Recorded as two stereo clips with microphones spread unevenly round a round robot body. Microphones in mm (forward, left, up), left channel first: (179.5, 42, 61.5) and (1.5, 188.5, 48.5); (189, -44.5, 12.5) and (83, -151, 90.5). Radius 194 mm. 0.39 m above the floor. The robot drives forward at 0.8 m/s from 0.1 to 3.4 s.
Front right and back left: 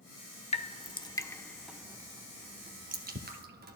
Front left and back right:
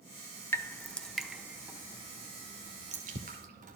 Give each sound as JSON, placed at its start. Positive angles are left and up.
{"t": 0.5, "sound": "dripping", "azimuth_deg": 15, "distance_m": 1.5}